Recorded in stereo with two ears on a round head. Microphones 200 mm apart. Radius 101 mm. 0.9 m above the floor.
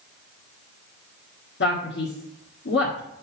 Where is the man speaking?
50° left (ahead or behind), 1.6 m.